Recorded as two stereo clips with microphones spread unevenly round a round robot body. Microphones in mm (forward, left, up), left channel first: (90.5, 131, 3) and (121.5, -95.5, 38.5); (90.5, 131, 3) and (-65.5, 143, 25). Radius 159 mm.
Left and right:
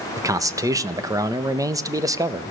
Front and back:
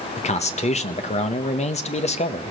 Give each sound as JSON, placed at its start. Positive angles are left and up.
{"t": 0.2, "sound": "a man speaking", "azimuth_deg": 0, "distance_m": 1.1}